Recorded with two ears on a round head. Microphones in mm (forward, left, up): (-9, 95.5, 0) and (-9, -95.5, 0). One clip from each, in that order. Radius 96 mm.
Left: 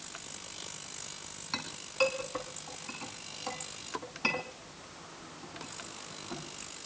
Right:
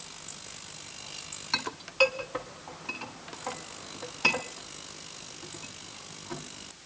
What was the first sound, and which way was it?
A clink, 15° right (ahead or behind).